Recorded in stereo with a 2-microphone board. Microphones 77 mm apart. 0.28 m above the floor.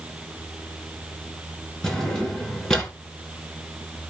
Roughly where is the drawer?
Centre.